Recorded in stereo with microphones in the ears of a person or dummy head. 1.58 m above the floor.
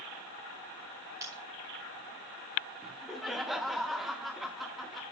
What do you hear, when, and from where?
1.2 s breaking glass: 20° right (ahead or behind), 6.5 m
2.8 s laughter: centre (ahead or behind), 1.5 m